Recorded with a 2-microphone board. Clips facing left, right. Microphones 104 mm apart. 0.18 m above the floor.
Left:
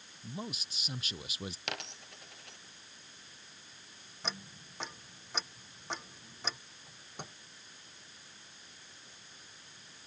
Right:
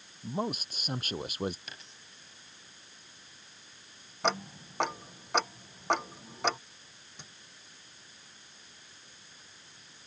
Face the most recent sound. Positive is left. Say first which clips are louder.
# left 6 dB
turn(degrees=55)  # may be behind; listen again after turning